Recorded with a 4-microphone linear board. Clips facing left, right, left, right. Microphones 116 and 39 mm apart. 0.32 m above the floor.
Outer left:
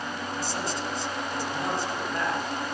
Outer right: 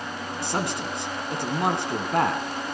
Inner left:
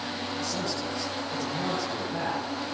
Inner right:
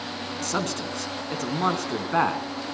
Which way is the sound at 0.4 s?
65° right (ahead or behind).